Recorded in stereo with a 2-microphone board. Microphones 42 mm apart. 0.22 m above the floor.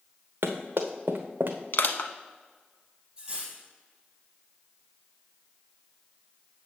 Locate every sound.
0.4 s running footsteps: 80° right, 1.4 m; by 1.6 s 65° right (ahead or behind), 1.0 m
1.7 s crushing: 60° left (ahead or behind), 0.6 m
3.2 s cutlery clinking: 15° right (ahead or behind), 4 m